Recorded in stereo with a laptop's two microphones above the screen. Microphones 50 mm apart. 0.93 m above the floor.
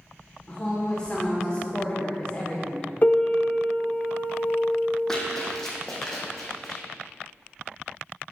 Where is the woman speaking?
20° left (ahead or behind), 2.5 m.